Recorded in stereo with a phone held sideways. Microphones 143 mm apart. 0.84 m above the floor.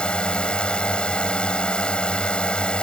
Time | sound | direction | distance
0.0 | a drone | 10° left (ahead or behind) | ?